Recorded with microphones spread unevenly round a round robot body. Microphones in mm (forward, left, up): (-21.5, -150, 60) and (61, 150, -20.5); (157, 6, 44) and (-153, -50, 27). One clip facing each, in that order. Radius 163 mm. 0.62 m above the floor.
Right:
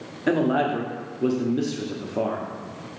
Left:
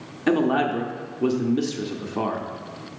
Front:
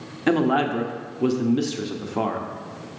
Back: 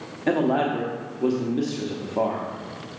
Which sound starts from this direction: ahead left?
A man speaking, at 0.3 s.